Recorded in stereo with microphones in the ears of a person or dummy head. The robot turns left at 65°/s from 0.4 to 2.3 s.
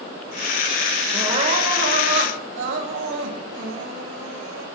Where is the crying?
15° right, 1.3 m; by 4.7 s 90° right, 1.3 m.